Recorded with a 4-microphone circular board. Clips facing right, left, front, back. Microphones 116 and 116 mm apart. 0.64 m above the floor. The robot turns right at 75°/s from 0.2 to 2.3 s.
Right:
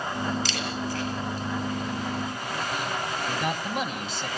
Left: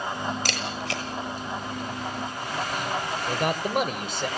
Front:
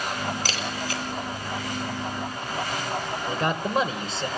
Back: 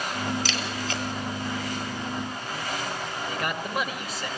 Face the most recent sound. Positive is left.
turn(degrees=65)